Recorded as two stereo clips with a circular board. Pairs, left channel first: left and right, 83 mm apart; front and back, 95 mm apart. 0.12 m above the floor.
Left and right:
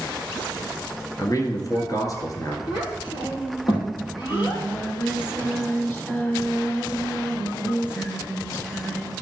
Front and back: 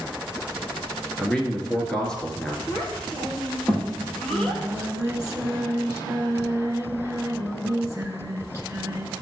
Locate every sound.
1.2 s a man speaking: 80° left, 1.6 m
2.7 s a child speaking: 85° left, 3 m
4.0 s singing: 145° left, 2.0 m